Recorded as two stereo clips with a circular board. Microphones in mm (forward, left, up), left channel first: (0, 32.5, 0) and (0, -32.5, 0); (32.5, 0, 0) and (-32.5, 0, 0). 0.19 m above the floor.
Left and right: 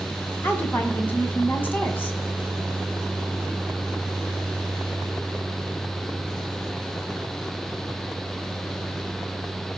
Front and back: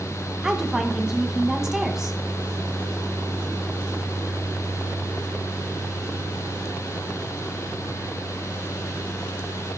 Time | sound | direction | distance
0.4 | a woman speaking | 105° left | 1.6 m